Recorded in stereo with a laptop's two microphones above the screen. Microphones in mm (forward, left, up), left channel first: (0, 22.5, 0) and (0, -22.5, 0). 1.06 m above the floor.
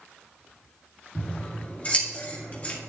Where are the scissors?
30° left (ahead or behind), 2 m.